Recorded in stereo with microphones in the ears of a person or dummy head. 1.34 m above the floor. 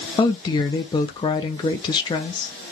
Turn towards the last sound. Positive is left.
turn(degrees=20)  # may be behind; listen again after turning